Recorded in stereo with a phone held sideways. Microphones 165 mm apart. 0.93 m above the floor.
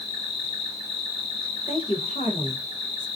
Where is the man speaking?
50° left (ahead or behind), 0.5 m.